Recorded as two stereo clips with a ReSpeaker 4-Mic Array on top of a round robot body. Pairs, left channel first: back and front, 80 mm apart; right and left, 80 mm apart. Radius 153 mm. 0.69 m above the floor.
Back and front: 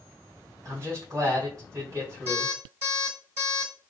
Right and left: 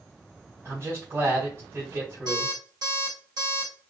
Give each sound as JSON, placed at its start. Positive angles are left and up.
{"t": 0.7, "sound": "a man speaking", "azimuth_deg": 40, "distance_m": 2.0}
{"t": 2.3, "sound": "an alarm clock", "azimuth_deg": 60, "distance_m": 2.5}